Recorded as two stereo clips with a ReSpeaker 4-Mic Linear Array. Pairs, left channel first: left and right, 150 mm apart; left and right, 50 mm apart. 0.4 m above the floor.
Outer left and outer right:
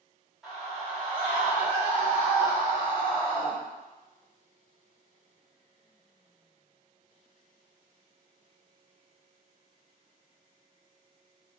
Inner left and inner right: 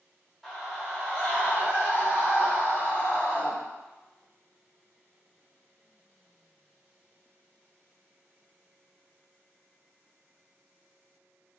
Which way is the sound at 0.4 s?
Centre (ahead or behind).